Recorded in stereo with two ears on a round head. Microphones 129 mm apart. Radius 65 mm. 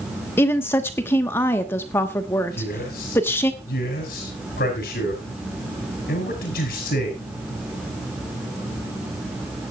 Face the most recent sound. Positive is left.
turn(degrees=70)  # may be behind; listen again after turning